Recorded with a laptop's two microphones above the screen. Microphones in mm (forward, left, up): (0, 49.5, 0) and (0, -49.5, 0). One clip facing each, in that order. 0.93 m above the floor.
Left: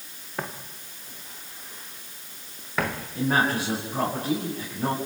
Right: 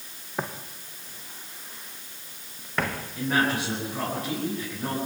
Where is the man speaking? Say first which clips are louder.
Left 2 dB; 25° left (ahead or behind), 8.5 m.